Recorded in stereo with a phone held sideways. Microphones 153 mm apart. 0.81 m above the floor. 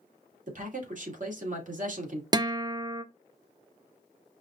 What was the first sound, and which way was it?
A man speaking, 55° right (ahead or behind).